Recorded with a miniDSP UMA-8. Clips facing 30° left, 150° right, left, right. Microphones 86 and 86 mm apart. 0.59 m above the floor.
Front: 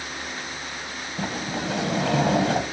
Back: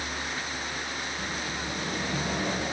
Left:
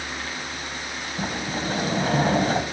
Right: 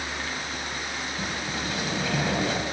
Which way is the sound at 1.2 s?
35° left.